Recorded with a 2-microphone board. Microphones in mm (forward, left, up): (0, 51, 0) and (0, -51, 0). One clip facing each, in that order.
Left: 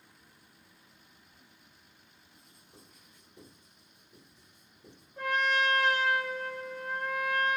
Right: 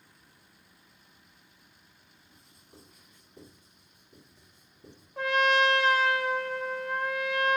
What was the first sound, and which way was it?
Writing, 45° right (ahead or behind).